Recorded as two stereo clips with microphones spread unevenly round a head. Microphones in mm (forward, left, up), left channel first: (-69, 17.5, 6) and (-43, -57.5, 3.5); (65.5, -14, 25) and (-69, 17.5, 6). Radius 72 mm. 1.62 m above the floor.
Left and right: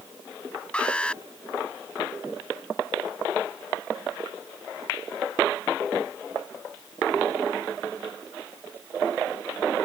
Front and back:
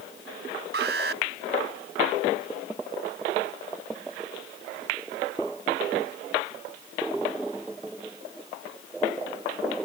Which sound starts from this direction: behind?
An alarm, at 0.7 s.